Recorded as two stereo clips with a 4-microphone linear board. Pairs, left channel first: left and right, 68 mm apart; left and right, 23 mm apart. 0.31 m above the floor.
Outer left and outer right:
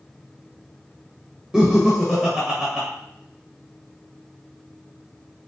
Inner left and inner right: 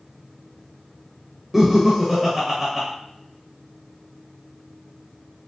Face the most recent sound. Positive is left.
turn(degrees=-15)  # may be behind; listen again after turning